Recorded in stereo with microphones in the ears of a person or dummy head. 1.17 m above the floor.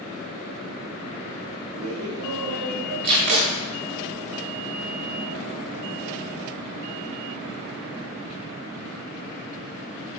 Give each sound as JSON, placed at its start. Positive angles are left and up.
{"t": 1.7, "sound": "laughter", "side_deg": -90, "distance_m": 1.3}
{"t": 3.0, "sound": "tape being pulled", "side_deg": -50, "distance_m": 1.3}